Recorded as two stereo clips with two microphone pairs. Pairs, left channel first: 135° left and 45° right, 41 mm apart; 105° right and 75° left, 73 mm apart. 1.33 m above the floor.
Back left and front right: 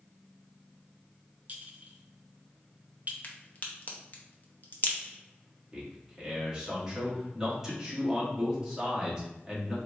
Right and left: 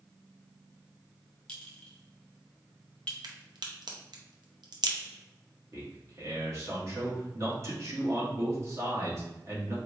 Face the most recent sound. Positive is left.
turn(degrees=30)